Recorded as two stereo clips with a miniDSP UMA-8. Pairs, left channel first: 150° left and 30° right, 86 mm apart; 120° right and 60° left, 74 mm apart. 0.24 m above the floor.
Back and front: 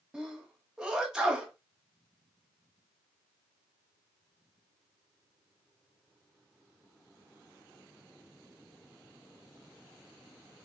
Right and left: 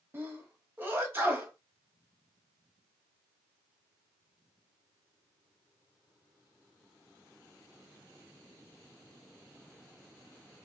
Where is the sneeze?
40° left, 1.2 m.